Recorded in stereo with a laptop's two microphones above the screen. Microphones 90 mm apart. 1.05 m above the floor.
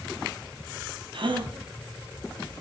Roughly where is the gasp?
Right.